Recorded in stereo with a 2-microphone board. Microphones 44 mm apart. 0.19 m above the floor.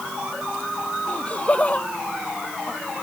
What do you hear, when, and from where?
1.1 s laughter: 30° left (ahead or behind)